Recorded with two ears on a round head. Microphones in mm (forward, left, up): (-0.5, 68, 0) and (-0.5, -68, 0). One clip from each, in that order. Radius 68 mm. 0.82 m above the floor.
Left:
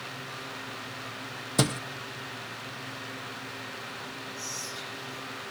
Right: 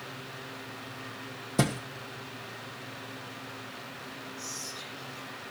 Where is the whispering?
70° left (ahead or behind), 9.5 m.